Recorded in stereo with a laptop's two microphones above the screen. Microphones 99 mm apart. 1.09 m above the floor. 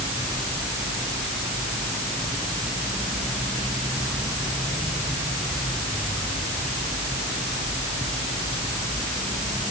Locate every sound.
Only background noise.